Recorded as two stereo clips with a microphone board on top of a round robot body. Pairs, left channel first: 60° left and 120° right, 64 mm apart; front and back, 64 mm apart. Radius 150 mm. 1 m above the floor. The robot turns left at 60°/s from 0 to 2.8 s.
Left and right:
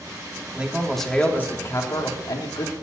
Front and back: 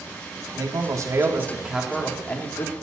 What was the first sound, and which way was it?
A man speaking, 170° left.